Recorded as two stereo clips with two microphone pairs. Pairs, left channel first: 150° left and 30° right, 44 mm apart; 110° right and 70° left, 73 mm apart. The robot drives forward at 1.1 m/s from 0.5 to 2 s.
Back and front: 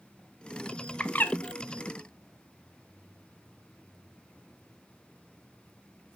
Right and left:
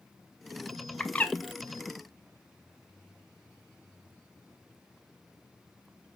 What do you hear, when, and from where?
1.0 s a bird: 175° right, 0.7 m; by 1.4 s straight behind, 1.0 m